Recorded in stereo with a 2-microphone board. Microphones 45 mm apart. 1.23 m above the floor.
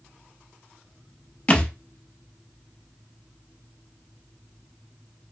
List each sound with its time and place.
1.5 s a thud: 30° left (ahead or behind), 0.8 m